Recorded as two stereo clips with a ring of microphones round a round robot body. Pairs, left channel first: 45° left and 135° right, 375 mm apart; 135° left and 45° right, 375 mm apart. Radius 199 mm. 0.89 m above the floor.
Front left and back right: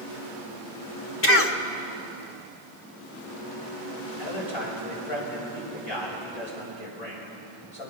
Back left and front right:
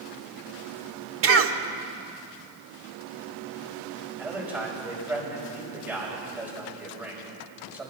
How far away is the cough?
About 1.4 m.